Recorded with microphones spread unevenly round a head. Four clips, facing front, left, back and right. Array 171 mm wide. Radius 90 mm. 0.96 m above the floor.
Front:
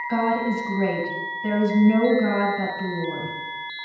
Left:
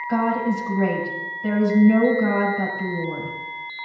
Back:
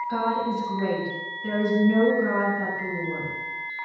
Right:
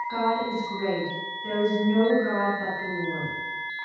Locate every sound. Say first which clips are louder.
0.1 s a woman speaking: left 5 dB, front 4 dB; 65° left, 5.5 m